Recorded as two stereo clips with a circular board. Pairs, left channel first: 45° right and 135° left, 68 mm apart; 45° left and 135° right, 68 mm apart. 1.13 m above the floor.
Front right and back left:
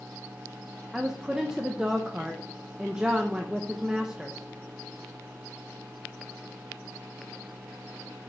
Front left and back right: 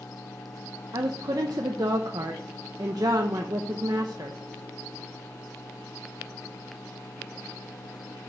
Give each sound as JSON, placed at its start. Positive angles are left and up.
{"t": 0.9, "sound": "a woman speaking", "azimuth_deg": -145, "distance_m": 0.8}